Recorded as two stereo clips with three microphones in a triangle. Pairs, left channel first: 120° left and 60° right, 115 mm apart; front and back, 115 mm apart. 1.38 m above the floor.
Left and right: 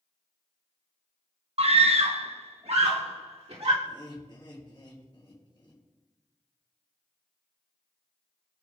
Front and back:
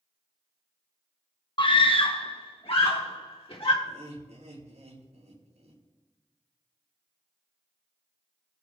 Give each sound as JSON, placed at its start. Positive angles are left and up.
{"t": 1.6, "sound": "a scream", "azimuth_deg": -40, "distance_m": 0.7}
{"t": 3.8, "sound": "laughter", "azimuth_deg": 175, "distance_m": 3.5}